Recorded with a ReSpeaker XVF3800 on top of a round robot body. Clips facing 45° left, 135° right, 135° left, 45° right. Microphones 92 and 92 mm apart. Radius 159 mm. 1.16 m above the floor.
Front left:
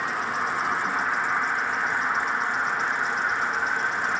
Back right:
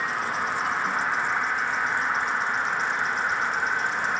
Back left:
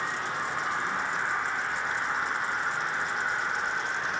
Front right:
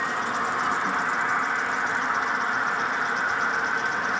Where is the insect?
45° right, 4.5 m.